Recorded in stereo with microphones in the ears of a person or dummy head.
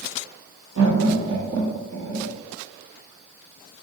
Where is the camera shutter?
No camera shutter in this recording.